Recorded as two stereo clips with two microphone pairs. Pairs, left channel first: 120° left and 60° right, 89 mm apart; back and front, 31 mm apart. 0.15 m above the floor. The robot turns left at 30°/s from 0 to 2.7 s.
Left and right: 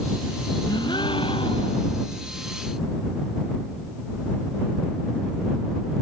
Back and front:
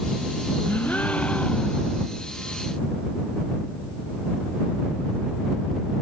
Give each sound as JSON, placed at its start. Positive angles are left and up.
{"t": 0.7, "sound": "a gasp", "azimuth_deg": 155}